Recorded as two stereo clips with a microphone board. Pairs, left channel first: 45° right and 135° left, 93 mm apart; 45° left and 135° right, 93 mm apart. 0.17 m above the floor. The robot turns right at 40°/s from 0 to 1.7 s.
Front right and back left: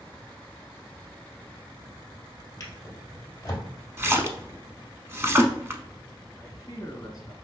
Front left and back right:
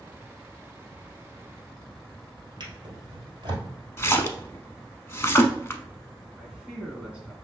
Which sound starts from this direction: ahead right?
A man speaking, at 6.4 s.